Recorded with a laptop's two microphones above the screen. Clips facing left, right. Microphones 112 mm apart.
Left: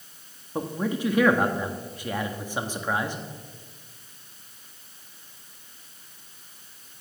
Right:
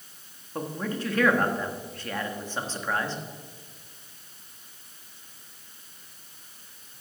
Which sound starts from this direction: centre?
A man speaking, at 0.6 s.